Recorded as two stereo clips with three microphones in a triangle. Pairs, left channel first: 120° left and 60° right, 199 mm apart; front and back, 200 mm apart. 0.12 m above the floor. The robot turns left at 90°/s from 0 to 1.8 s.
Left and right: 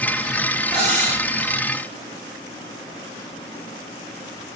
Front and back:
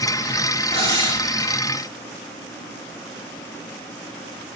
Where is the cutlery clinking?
Straight ahead, 1.3 m; by 1.2 s 45° right, 1.3 m.